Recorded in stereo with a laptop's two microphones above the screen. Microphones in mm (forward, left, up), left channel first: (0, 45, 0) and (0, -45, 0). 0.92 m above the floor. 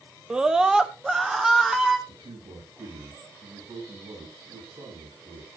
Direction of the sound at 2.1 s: 70° right (ahead or behind).